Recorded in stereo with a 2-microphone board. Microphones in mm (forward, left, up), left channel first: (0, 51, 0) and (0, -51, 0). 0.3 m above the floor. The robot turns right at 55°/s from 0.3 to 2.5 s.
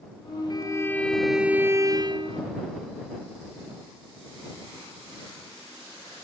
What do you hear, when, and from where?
0.5 s a violin: 140° left; by 2.4 s 120° right